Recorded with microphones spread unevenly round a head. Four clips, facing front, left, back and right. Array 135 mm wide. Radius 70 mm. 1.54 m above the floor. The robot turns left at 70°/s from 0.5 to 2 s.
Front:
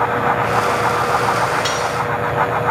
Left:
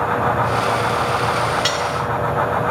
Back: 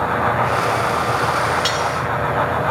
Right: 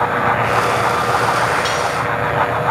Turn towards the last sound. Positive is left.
turn(degrees=65)